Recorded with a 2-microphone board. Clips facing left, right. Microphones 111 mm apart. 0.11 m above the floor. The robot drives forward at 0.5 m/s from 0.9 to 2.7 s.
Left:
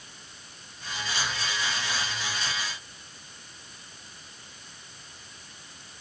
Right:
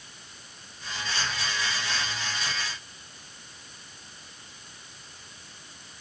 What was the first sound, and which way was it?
Only background noise.